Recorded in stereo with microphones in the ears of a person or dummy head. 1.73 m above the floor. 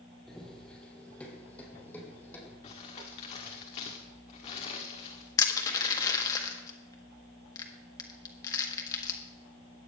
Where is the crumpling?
30° left (ahead or behind), 1.6 m.